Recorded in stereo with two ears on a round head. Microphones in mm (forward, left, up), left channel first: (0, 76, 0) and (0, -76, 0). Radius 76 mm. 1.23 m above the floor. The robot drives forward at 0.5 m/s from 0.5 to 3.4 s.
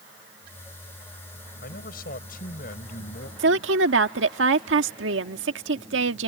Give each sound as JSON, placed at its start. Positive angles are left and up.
{"t": 1.6, "sound": "a man speaking", "side_deg": 55}
{"t": 3.4, "sound": "a woman speaking", "side_deg": -80}